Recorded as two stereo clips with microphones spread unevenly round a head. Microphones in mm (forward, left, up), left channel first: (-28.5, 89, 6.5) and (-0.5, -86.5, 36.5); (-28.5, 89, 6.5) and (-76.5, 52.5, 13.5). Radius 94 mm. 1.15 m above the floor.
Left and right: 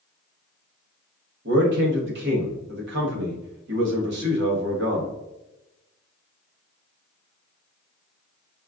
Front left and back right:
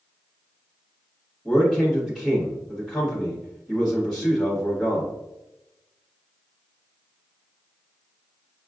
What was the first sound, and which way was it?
A man speaking, 50° right.